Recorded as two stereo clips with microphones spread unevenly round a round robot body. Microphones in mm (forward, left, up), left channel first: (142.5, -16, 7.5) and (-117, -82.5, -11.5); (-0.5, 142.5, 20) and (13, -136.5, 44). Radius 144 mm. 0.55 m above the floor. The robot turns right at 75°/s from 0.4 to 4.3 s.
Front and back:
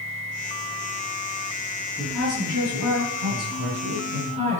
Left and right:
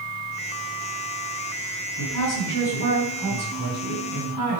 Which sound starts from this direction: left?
A woman speaking, at 2.0 s.